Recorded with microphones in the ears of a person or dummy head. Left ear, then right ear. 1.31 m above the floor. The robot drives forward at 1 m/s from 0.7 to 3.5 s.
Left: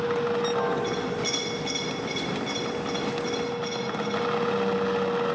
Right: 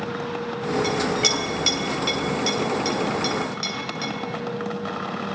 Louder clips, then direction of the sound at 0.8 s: Right 7 dB; 45° right (ahead or behind).